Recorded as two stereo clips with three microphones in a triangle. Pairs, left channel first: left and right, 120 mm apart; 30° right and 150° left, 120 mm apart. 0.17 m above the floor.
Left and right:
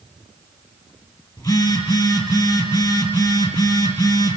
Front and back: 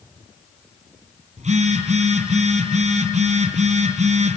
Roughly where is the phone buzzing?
Behind left.